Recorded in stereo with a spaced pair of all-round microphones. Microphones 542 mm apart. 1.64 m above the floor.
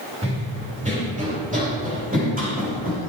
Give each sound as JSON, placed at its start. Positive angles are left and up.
{"t": 0.2, "sound": "running footsteps", "side_deg": -10, "distance_m": 5.0}